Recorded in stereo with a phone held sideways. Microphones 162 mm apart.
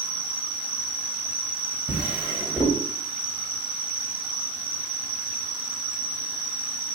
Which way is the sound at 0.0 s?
25° left (ahead or behind).